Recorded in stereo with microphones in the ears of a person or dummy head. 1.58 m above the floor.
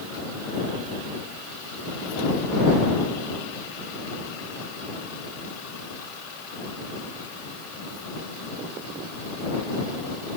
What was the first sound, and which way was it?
Only background noise.